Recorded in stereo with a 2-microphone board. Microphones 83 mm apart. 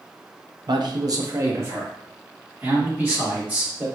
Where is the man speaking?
60° right (ahead or behind), 0.8 m; by 3.9 s 20° right (ahead or behind), 3 m.